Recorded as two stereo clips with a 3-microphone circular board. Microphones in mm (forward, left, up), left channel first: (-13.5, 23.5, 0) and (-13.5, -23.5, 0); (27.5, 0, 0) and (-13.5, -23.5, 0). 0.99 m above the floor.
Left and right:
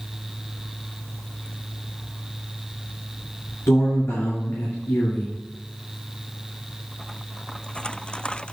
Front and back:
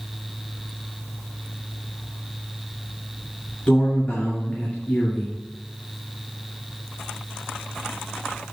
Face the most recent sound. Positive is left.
turn(degrees=90)